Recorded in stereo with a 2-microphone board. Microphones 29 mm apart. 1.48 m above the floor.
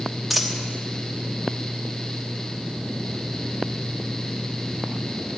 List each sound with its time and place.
0.3 s a dropped coin: 5° right (ahead or behind), 1.3 m